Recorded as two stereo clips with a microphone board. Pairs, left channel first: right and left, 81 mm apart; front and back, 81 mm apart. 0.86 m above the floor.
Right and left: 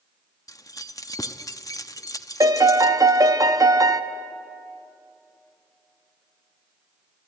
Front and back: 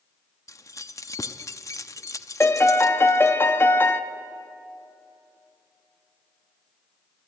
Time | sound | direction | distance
0.5 | keys jangling | 50° right | 0.7 m
2.4 | a piano | 60° left | 0.9 m